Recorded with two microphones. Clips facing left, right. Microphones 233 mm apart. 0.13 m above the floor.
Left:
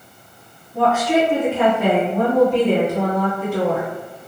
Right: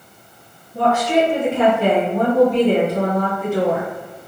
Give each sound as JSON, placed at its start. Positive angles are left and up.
{"t": 0.7, "sound": "a woman speaking", "side_deg": 5, "distance_m": 1.6}